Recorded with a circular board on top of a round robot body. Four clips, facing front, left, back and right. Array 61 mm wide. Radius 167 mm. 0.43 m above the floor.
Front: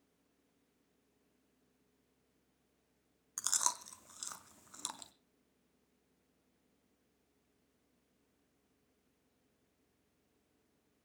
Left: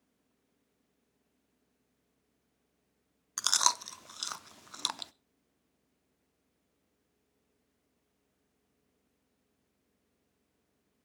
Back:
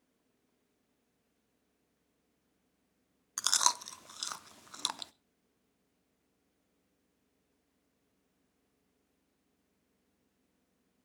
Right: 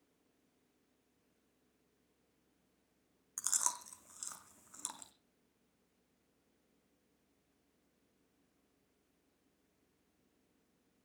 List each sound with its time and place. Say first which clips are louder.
3.4 s chewing: left 12 dB, back 8 dB; 125° left, 0.7 m